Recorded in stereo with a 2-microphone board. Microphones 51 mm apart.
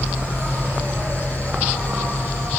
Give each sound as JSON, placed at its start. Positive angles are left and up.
{"t": 0.0, "sound": "an insect", "side_deg": -40, "distance_m": 3.0}